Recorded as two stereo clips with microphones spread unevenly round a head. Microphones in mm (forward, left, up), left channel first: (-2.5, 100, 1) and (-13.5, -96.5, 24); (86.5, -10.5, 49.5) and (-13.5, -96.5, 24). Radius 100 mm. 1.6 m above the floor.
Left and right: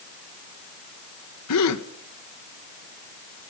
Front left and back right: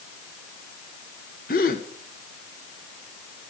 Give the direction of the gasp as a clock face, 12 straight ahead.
9 o'clock.